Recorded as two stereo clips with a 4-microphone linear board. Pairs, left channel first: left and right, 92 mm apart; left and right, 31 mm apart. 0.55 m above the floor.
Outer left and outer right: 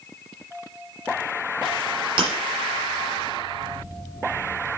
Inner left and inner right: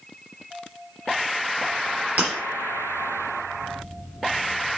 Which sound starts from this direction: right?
Breaking glass, at 2.2 s.